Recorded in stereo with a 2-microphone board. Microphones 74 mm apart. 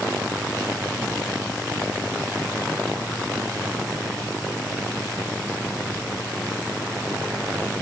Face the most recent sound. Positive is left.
No sound to turn to.